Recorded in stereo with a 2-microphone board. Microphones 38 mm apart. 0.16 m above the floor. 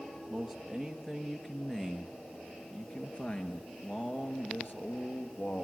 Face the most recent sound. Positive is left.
turn(degrees=60)  # may be behind; listen again after turning